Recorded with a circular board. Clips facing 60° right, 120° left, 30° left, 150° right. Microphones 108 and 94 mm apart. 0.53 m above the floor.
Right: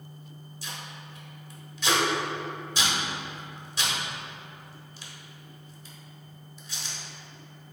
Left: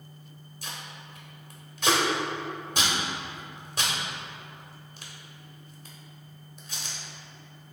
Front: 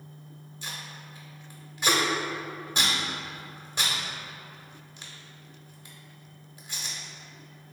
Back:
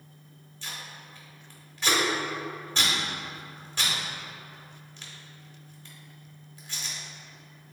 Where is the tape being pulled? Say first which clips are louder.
Even, even; 100° left, 0.9 m.